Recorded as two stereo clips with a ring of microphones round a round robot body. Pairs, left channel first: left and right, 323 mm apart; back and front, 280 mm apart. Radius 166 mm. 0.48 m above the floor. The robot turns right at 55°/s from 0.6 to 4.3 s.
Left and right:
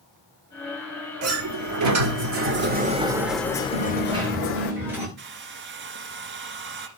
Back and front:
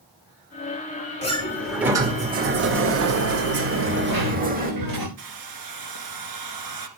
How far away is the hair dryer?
About 1.8 m.